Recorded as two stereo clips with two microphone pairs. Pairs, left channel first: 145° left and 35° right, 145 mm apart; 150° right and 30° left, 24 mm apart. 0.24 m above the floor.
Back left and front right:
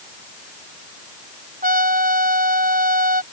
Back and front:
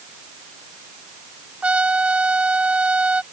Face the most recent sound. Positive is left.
turn(degrees=-15)